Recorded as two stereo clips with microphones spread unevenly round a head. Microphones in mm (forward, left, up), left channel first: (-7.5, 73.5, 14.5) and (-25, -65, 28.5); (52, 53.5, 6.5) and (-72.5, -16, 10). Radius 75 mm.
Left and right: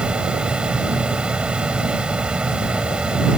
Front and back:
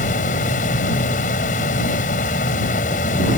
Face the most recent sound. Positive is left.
turn(degrees=-15)